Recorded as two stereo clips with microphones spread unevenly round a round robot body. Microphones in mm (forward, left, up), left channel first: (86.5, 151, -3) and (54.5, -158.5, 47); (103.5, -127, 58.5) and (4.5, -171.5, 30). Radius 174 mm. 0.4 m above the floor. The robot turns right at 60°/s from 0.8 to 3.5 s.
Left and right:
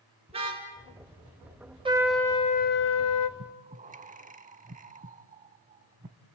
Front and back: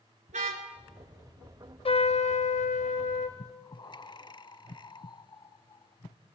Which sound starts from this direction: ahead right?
Breathing, at 3.4 s.